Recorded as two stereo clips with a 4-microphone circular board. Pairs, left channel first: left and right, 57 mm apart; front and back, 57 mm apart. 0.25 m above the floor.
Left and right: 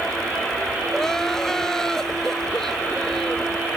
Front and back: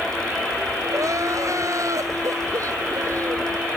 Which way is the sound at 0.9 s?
170° left.